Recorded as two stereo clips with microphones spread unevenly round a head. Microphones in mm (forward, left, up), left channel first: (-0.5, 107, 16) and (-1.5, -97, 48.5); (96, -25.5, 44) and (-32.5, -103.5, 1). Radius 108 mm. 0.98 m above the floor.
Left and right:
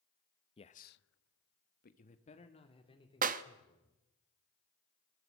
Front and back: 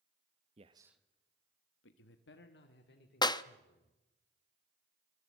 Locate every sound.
0.6 s a man speaking: 155° left, 0.9 m; by 4.0 s 20° left, 3.5 m
3.2 s a clap: 35° right, 0.9 m